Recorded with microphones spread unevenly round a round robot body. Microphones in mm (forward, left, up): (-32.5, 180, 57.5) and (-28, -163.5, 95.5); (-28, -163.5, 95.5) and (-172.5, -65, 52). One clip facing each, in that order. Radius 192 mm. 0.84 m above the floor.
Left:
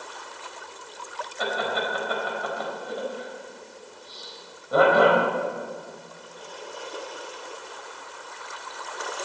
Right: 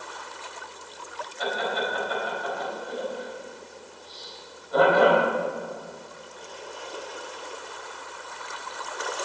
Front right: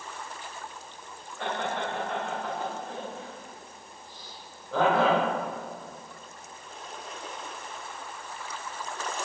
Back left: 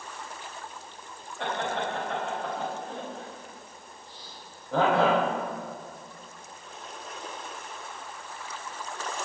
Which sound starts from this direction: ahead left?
Laughter, at 1.4 s.